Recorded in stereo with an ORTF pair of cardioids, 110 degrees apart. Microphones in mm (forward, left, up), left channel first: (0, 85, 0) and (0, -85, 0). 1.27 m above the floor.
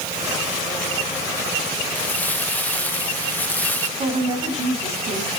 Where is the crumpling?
10° left, 1.6 m.